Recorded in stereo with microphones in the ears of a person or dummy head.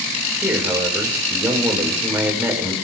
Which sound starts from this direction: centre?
A man speaking, at 0.4 s.